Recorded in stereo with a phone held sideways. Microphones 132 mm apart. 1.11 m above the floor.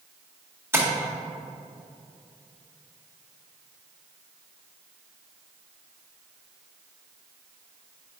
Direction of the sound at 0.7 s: 20° right (ahead or behind).